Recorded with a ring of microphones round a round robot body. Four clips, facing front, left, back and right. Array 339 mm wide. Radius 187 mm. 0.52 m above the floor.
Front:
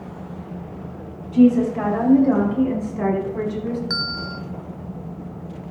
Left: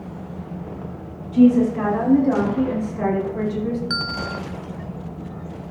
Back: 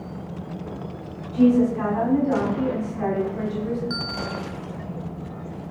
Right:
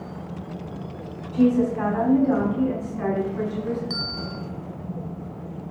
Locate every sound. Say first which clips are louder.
1.3 s a woman speaking: left 5 dB, front 3 dB; 35° left, 6 m; by 3.8 s 50° left, 5 m
3.9 s a bell: left 5 dB, even; 15° left, 1.8 m